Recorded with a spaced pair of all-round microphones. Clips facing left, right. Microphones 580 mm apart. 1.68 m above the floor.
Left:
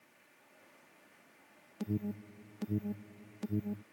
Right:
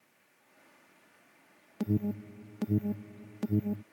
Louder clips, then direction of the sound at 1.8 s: Right 6 dB; 75° right (ahead or behind).